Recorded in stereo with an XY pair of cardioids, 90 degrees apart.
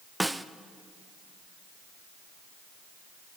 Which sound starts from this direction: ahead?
A snare drum, at 0.2 s.